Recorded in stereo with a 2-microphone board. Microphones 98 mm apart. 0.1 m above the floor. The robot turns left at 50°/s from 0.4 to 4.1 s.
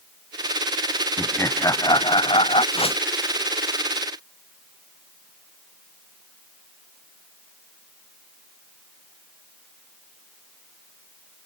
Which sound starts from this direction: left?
A whoosh, at 2.7 s.